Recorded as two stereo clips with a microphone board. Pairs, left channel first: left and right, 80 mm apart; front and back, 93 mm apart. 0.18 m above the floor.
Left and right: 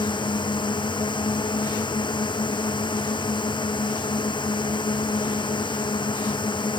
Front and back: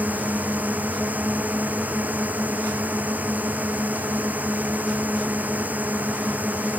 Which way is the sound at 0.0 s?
105° left.